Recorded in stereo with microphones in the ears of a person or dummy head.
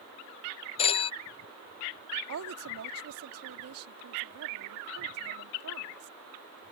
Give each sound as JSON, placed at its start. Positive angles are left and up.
{"t": 0.8, "sound": "a phone ringing", "side_deg": 30}
{"t": 2.3, "sound": "a woman speaking", "side_deg": -85}